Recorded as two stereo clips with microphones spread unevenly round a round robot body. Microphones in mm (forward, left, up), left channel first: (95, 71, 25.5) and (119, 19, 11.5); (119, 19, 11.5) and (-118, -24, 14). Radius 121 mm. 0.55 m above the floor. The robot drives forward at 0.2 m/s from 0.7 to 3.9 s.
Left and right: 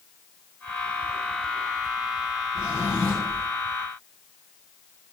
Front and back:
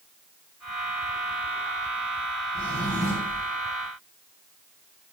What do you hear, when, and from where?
2.5 s a drawer: 105° right, 2 m; by 3.5 s 110° right, 2 m